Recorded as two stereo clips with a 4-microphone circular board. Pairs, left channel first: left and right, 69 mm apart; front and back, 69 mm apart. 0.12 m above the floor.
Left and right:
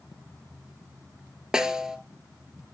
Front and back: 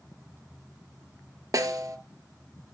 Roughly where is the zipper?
I don't hear a zipper.